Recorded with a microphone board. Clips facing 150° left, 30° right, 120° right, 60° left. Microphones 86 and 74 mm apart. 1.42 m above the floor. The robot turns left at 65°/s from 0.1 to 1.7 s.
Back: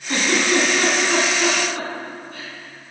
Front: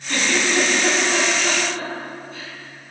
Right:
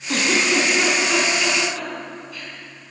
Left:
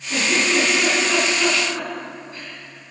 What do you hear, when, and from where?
0.1 s a giggle: 135° right, 3.5 m; by 2.5 s 120° left, 3.5 m